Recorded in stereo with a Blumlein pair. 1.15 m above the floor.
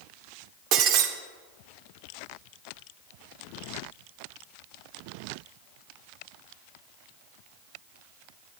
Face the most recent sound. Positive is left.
turn(degrees=-40)